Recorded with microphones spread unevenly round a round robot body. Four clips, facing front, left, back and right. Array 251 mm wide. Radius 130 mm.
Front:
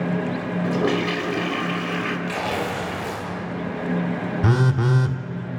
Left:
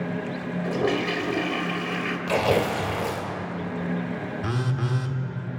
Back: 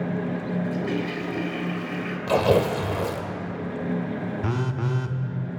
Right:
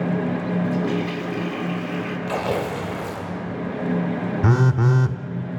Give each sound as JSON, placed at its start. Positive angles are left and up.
{"t": 0.6, "sound": "a toilet flushing", "azimuth_deg": 40, "distance_m": 3.0}
{"t": 2.3, "sound": "tearing paper", "azimuth_deg": 170, "distance_m": 2.5}
{"t": 4.4, "sound": "a phone buzzing", "azimuth_deg": -50, "distance_m": 1.0}